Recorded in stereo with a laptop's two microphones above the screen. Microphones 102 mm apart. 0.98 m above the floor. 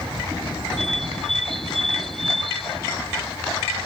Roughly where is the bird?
Centre.